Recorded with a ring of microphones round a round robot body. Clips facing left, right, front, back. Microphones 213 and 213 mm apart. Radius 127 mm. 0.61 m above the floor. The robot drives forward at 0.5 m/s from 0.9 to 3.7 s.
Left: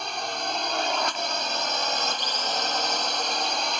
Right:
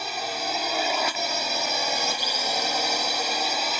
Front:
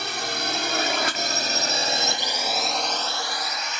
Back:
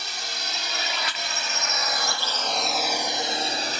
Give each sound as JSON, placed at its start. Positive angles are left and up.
{"t": 0.0, "sound": "a drone", "azimuth_deg": -10}